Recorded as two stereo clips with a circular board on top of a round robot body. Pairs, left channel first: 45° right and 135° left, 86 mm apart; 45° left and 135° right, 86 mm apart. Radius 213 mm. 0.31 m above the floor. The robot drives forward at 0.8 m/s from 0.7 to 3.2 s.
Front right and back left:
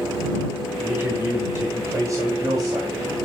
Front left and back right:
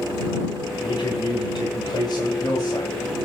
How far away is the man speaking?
About 3.5 m.